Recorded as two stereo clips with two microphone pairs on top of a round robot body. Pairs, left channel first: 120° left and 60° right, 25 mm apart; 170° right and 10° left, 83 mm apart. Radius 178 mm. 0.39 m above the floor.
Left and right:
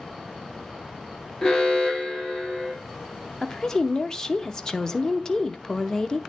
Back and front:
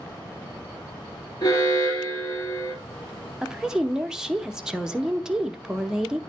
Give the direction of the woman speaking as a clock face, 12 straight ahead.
9 o'clock.